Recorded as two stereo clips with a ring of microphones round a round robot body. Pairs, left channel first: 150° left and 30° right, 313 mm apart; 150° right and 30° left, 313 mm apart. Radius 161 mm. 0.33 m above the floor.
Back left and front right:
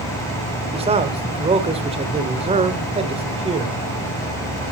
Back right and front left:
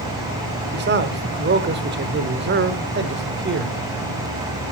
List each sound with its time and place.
0.7 s a man speaking: 25° left, 1.4 m